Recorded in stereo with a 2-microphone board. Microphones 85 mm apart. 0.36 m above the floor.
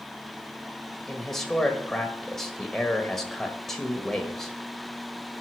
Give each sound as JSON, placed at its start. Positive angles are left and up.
{"t": 1.1, "sound": "a man speaking", "side_deg": 5, "distance_m": 1.4}